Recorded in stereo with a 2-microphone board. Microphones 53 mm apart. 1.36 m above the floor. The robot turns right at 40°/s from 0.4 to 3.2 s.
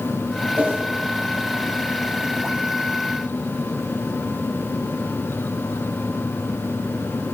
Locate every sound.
0.6 s a whoosh: 40° right (ahead or behind), 6.5 m; by 0.8 s 30° right (ahead or behind), 6.5 m